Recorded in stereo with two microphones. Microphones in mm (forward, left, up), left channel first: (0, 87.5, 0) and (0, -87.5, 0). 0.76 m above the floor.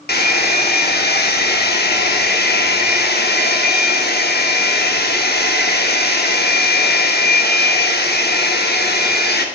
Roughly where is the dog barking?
I don't hear a dog barking.